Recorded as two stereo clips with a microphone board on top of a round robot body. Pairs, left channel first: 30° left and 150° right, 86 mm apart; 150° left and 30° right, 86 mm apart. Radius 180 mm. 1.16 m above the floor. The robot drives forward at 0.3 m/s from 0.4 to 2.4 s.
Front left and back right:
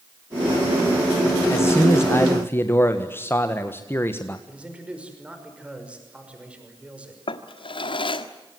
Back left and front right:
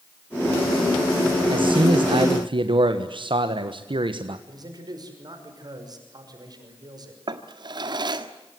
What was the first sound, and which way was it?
A man speaking, 30° right.